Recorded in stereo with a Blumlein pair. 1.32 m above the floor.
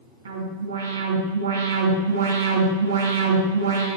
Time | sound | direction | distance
0.2 | an alarm | 70° right | 5 m